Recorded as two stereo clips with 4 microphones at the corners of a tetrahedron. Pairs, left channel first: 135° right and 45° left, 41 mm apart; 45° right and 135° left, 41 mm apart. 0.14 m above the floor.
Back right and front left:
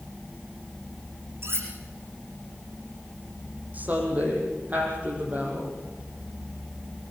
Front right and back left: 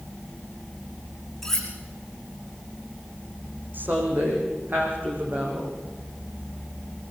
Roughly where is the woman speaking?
Left.